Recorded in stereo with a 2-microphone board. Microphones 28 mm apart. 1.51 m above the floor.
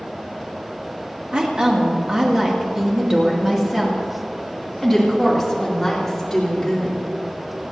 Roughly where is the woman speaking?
Right.